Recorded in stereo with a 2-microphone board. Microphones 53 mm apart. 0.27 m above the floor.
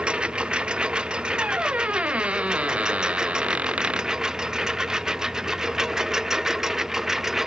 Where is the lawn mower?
15° right (ahead or behind); by 7.5 s 5° right (ahead or behind).